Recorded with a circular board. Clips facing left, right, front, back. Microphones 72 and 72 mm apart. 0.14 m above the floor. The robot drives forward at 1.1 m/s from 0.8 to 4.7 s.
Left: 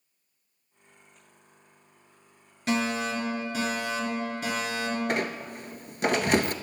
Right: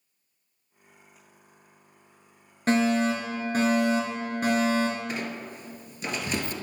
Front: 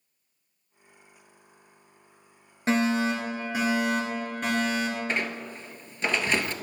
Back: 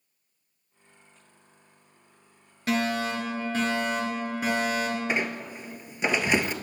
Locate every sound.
2.7 s a fire alarm: 50° right, 3.5 m; by 5.0 s 105° right, 3 m
5.1 s a squeak: 105° left, 0.7 m